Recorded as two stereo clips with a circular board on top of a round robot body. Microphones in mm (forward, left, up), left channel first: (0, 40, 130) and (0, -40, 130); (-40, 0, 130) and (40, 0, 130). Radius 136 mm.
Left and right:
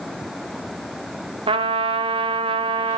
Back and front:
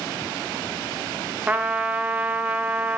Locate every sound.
1.5 s a trumpet: 75° right, 1.1 m